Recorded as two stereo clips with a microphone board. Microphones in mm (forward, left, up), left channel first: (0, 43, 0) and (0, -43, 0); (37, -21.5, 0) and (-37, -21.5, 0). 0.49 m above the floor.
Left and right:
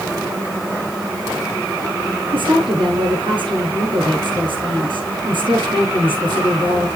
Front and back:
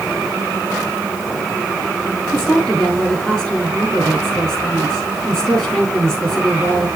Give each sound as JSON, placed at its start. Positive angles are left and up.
{"t": 2.3, "sound": "a woman speaking", "azimuth_deg": -85, "distance_m": 6.5}